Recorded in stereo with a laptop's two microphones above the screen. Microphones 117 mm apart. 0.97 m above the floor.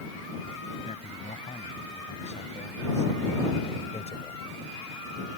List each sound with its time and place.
0.8 s a man speaking: 80° left; by 4.4 s 70° left (ahead or behind)